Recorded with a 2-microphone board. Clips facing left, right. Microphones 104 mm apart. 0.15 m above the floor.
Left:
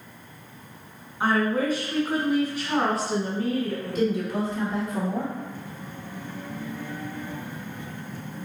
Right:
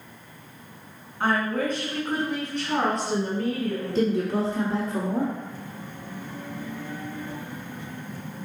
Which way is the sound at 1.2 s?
10° left (ahead or behind).